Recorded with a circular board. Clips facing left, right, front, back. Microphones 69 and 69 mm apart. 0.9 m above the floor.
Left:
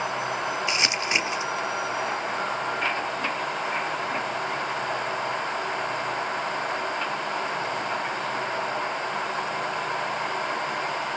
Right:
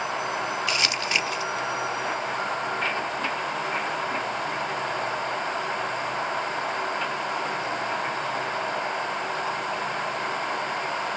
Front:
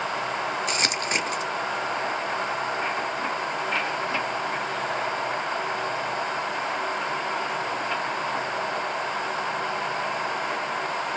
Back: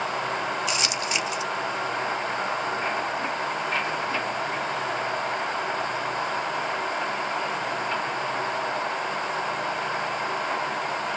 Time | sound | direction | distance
0.7 | crumpling | 25° left | 1.2 m